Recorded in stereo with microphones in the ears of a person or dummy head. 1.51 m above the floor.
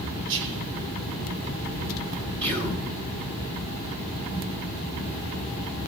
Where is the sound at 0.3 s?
65° right (ahead or behind), 3 m.